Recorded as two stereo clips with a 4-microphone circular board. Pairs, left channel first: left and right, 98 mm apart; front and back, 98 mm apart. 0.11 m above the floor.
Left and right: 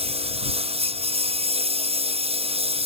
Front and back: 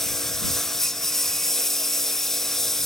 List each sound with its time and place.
0.0 s a lawn mower: 85° right